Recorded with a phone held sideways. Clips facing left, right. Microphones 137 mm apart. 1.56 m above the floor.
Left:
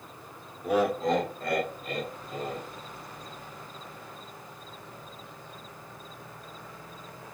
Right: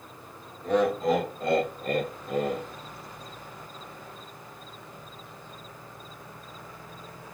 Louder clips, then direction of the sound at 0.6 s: Right 2 dB; 10° left (ahead or behind).